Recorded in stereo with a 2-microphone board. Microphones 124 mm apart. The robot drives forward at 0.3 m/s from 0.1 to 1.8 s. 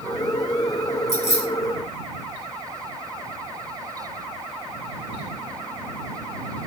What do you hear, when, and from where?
1.1 s keys jangling: 75° left (ahead or behind), 1.8 m; by 1.5 s 80° left, 1.8 m